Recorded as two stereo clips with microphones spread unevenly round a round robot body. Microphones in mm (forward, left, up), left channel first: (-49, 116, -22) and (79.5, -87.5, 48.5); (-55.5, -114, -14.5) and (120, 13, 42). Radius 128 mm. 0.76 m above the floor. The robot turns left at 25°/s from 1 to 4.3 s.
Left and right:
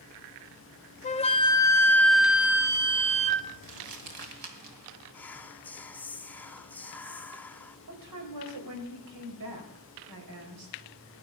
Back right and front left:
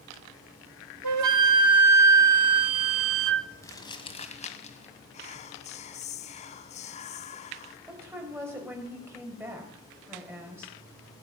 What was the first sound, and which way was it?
A flute, 65° left.